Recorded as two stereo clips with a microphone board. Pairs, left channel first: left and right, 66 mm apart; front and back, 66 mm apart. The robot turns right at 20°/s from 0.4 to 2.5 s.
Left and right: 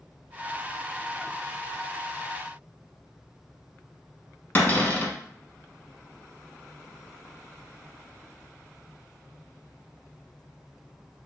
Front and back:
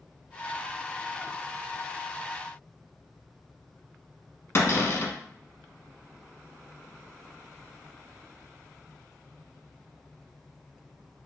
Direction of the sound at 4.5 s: 35° left.